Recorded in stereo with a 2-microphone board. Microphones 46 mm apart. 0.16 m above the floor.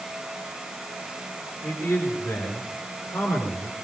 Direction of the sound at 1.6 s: 65° left (ahead or behind).